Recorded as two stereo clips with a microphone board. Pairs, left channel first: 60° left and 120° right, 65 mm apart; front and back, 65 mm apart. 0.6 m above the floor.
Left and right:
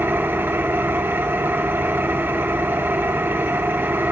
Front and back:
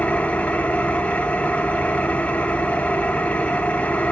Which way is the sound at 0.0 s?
65° right.